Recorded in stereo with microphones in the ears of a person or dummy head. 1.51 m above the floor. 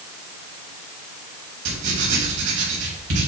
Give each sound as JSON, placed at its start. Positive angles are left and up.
{"t": 1.6, "sound": "writing", "side_deg": -70, "distance_m": 2.5}